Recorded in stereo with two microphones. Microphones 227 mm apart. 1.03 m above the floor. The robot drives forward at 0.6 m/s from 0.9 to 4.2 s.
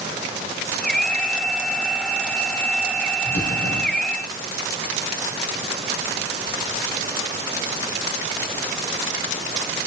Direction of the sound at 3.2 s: 75° left (ahead or behind).